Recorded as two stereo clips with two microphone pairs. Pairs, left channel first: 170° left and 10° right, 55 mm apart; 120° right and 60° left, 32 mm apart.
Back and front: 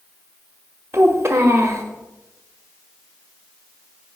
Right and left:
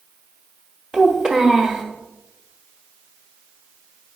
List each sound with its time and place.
0.9 s a child speaking: 30° right, 1.1 m